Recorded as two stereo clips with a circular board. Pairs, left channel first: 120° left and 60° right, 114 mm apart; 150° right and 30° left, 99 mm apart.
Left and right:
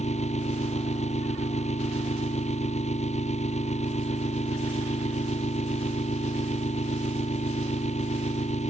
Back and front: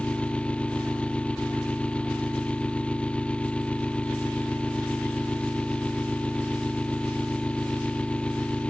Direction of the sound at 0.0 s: 130° left.